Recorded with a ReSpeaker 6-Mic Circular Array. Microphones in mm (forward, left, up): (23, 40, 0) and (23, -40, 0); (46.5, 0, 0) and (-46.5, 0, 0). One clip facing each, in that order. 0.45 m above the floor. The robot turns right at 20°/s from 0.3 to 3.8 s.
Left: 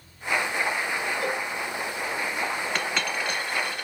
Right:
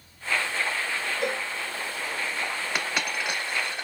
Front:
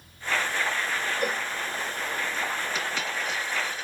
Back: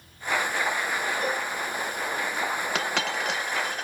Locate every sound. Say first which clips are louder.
1.2 s a cowbell: left 1 dB, back 1 dB; 35° right, 3 m; by 1.5 s 30° right, 3 m
2.8 s a dropped coin: left 1 dB, back 3 dB; 170° right, 0.8 m; by 3.9 s 150° right, 0.8 m